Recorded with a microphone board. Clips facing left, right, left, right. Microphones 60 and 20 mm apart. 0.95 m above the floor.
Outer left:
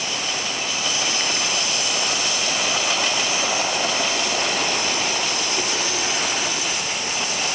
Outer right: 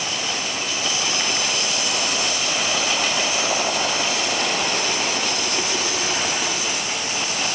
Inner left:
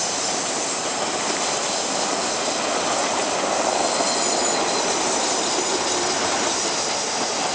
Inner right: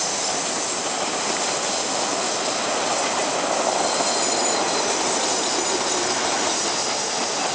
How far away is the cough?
No cough in this recording.